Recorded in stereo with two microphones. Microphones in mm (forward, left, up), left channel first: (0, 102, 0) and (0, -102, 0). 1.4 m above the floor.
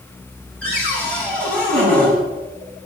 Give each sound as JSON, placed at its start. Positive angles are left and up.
{"t": 0.6, "sound": "a cupboard door", "side_deg": 5, "distance_m": 8.5}